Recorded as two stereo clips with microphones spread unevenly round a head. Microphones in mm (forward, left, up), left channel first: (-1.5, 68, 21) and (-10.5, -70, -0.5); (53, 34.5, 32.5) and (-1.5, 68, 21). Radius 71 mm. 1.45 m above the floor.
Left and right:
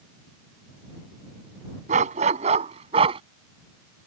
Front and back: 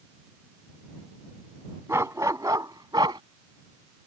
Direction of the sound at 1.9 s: 135° right.